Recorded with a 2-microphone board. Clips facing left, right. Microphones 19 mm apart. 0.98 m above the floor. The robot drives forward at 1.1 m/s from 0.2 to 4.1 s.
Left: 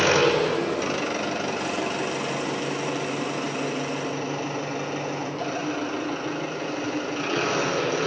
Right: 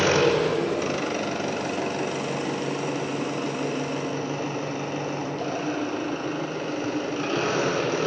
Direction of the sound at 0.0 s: 5° left (ahead or behind).